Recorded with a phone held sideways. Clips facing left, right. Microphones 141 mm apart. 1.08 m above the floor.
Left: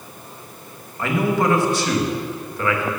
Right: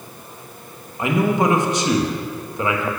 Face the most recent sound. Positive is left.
turn(degrees=-20)  # may be behind; listen again after turning